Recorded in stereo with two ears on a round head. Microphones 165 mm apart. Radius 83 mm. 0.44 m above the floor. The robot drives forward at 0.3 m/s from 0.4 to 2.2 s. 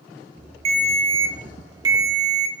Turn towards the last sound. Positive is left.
turn(degrees=-20)  # may be behind; listen again after turning